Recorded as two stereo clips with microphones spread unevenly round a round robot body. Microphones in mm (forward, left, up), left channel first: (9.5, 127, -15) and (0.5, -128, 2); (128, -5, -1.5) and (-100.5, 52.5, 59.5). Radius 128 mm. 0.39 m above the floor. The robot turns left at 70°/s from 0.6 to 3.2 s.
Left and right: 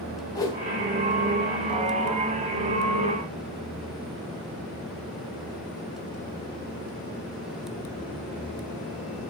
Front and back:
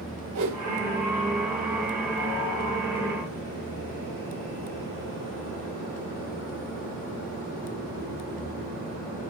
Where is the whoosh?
160° left, 3 m.